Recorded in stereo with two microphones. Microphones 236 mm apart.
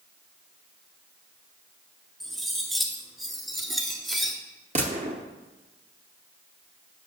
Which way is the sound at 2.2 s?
Centre (ahead or behind).